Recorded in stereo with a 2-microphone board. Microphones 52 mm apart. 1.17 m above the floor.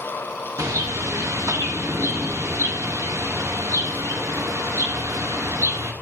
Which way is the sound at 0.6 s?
65° right (ahead or behind).